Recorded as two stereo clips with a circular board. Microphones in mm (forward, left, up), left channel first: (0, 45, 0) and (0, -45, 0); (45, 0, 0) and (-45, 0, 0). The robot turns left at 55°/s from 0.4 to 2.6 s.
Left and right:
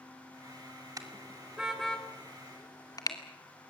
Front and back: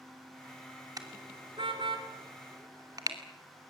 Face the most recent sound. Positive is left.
turn(degrees=135)